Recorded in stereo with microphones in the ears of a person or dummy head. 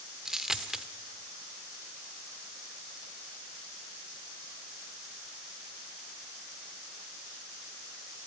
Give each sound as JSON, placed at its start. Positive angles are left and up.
{"t": 0.2, "sound": "a dropped coin", "side_deg": -5, "distance_m": 1.2}